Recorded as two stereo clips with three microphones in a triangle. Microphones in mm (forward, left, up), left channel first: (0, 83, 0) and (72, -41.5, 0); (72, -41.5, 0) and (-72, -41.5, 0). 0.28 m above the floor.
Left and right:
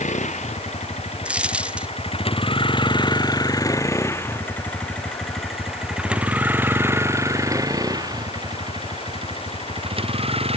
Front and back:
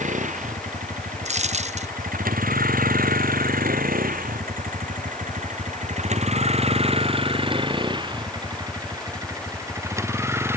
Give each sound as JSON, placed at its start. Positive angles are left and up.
{"t": 0.0, "sound": "a vehicle", "azimuth_deg": 150}
{"t": 1.2, "sound": "a dropped coin", "azimuth_deg": -140}